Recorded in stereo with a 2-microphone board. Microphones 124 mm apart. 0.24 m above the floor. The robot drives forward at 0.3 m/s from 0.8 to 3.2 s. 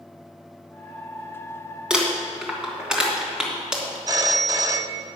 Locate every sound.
1.9 s crumpling: 5° right (ahead or behind), 2.5 m
4.1 s a phone ringing: 30° right (ahead or behind), 0.6 m